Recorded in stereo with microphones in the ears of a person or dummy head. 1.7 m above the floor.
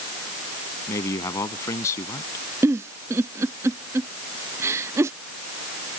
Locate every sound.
0.9 s a man speaking: 25° left (ahead or behind)
2.6 s a giggle: 10° right (ahead or behind)